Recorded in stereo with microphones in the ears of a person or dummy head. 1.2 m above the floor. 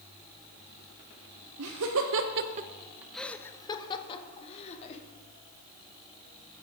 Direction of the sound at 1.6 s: 80° right.